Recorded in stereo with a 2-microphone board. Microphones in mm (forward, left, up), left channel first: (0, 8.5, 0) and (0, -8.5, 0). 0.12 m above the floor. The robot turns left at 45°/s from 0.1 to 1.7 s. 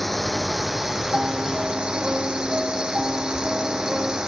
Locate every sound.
0.0 s a drone: 10° left (ahead or behind); by 4.3 s 40° right (ahead or behind)
1.1 s a piano: 70° right (ahead or behind); by 4.2 s 45° right (ahead or behind)